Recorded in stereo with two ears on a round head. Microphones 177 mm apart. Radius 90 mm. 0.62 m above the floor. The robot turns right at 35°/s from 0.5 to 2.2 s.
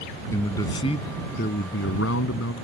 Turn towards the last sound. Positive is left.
turn(degrees=75)